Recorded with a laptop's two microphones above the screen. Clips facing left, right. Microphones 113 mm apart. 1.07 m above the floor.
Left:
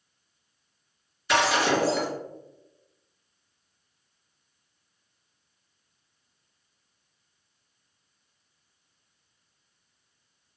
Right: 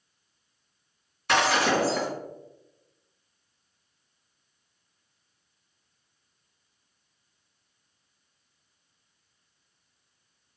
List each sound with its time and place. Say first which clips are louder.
1.3 s breaking glass: even; 65° right (ahead or behind), 2.0 m